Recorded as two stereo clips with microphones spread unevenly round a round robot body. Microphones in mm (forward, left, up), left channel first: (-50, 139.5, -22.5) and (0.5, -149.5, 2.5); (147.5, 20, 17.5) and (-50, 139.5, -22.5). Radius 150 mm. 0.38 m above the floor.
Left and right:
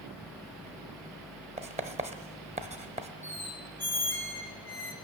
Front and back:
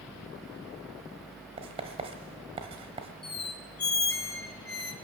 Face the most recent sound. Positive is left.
turn(degrees=15)